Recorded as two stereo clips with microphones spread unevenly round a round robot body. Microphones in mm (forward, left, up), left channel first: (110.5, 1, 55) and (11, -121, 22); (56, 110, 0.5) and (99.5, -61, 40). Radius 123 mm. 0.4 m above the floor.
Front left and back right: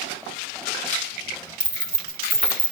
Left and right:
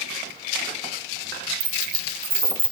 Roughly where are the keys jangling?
Right.